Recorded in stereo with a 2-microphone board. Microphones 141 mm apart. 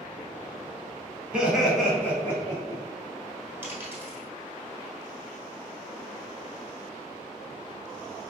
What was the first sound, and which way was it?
Laughter, 5° right (ahead or behind).